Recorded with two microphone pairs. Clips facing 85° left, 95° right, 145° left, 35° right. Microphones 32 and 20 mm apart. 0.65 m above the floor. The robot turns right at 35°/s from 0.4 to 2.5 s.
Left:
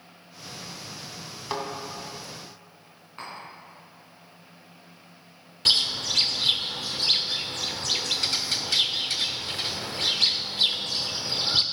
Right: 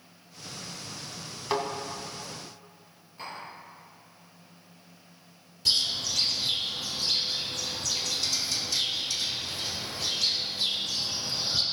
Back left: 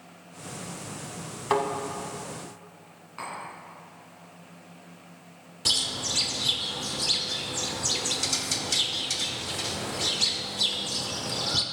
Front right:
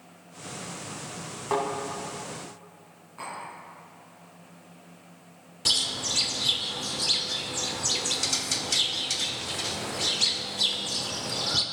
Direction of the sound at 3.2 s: 110° left.